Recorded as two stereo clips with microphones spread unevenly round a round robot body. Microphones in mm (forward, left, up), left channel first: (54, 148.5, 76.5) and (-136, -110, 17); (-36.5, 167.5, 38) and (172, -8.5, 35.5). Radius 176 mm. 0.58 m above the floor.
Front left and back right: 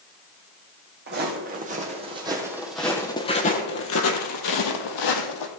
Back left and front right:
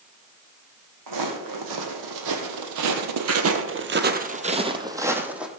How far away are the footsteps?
About 2 m.